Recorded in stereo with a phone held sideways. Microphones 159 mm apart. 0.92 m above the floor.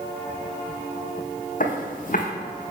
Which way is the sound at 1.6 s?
55° left (ahead or behind).